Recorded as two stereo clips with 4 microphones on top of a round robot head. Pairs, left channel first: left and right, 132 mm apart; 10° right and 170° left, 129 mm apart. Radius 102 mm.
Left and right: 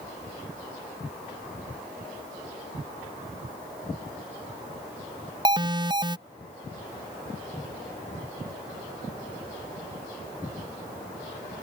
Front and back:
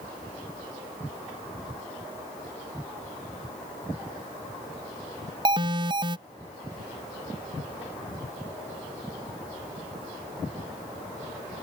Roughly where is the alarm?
Behind right.